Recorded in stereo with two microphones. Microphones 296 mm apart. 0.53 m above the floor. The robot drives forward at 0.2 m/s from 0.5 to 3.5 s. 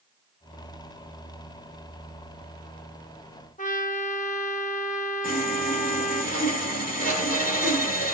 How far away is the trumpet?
About 1.0 m.